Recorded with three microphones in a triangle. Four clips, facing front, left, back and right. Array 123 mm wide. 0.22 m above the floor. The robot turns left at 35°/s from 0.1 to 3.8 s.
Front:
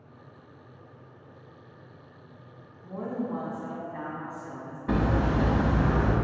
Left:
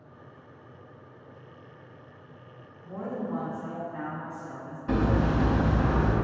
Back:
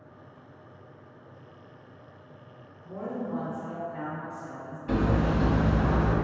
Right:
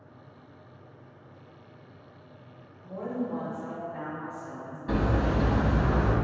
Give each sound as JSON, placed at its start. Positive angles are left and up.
{"t": 2.8, "sound": "a woman speaking", "azimuth_deg": 55, "distance_m": 1.6}
{"t": 4.9, "sound": "hammering", "azimuth_deg": 10, "distance_m": 0.6}